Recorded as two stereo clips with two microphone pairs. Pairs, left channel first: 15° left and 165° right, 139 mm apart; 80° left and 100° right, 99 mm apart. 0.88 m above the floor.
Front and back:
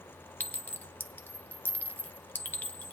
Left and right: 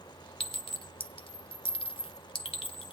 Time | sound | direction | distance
0.4 | a clink | 90° left | 0.8 m